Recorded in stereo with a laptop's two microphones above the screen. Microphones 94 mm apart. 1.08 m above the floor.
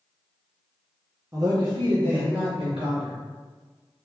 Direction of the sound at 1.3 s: 30° right (ahead or behind).